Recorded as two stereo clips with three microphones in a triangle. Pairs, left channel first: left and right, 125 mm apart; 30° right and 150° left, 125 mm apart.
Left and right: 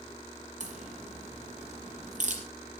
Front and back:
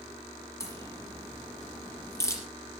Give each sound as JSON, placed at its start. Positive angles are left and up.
{"t": 0.6, "sound": "a crack", "azimuth_deg": -95, "distance_m": 4.5}